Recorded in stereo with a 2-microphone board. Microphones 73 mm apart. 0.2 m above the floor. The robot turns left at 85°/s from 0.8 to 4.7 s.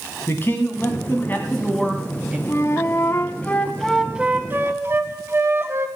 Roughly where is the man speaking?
Left.